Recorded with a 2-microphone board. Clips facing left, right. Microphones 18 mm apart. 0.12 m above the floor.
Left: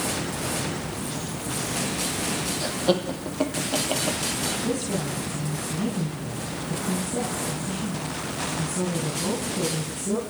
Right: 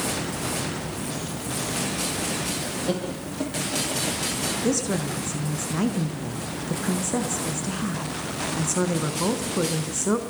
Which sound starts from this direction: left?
Laughter, at 2.6 s.